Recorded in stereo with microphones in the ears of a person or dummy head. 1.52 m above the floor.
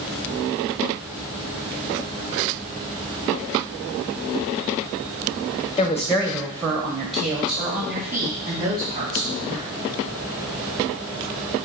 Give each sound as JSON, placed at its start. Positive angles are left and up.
{"t": 5.8, "sound": "a woman speaking", "side_deg": 20, "distance_m": 0.6}